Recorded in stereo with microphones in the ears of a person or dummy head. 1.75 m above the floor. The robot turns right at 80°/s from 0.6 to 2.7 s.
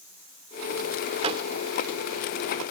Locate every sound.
1.2 s a door slam: 40° right (ahead or behind); by 1.4 s 25° right (ahead or behind)